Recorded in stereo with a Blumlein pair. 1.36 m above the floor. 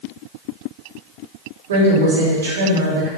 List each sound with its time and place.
1.7 s a woman speaking: 60° right, 6.5 m